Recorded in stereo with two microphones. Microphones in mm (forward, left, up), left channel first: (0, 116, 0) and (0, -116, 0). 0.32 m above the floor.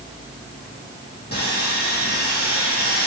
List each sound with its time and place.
1.3 s sawing: 45° left (ahead or behind), 3.5 m